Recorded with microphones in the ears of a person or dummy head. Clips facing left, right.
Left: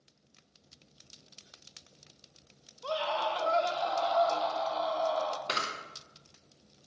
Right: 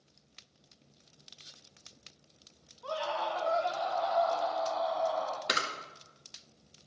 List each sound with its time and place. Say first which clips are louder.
2.8 s a scream: left 2 dB; 40° left (ahead or behind), 1.7 m
5.5 s a camera shutter: right 1 dB; 20° right (ahead or behind), 2.0 m